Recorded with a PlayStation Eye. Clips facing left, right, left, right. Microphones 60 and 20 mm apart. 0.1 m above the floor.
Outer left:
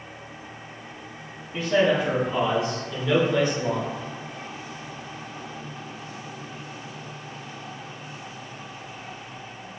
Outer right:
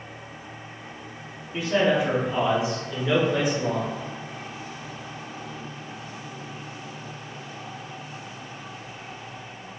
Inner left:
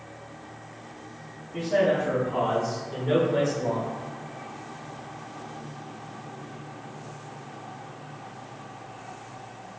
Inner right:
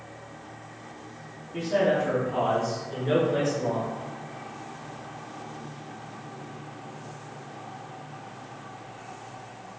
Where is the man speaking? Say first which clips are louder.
Outer left 1 dB, inner left 1 dB; 5° right (ahead or behind), 1.2 m; by 3.9 s 15° right (ahead or behind), 1.5 m.